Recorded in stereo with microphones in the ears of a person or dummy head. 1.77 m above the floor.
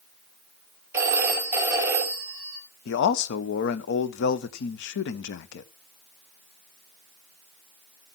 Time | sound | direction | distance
0.9 | a phone ringing | 15° right (ahead or behind) | 3.5 m
2.9 | a man speaking | 65° left (ahead or behind) | 1.2 m